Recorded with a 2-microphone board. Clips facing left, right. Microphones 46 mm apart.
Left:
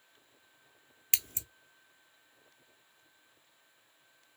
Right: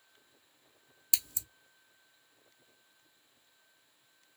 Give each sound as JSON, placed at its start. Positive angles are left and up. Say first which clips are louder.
{"t": 1.1, "sound": "scissors", "louder": "left 2 dB", "side_deg": 45, "distance_m": 0.7}